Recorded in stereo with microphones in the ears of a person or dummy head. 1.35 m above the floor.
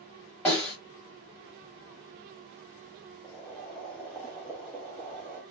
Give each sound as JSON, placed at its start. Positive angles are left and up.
{"t": 0.5, "sound": "a snare drum", "side_deg": 10, "distance_m": 1.3}
{"t": 3.2, "sound": "boiling", "side_deg": 0, "distance_m": 0.8}